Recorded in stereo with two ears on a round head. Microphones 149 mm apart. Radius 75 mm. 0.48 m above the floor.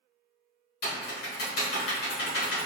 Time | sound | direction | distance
0.8 | typing on a keyboard | 65° left (ahead or behind) | 1.5 m